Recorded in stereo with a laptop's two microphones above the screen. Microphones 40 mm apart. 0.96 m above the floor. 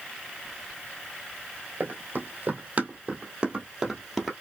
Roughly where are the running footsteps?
Right.